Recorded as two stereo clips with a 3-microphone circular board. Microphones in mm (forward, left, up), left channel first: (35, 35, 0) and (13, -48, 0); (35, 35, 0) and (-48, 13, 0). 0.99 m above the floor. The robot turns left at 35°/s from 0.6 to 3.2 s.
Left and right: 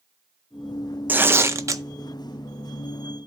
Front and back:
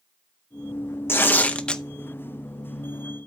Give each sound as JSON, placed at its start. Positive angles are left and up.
{"t": 1.1, "sound": "tearing paper", "azimuth_deg": -40, "distance_m": 0.6}